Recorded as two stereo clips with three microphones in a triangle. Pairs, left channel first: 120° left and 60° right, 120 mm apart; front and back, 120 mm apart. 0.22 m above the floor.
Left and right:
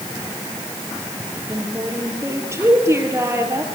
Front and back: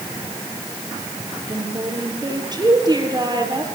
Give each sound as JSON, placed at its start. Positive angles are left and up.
{"t": 1.3, "sound": "a woman speaking", "azimuth_deg": -125, "distance_m": 6.0}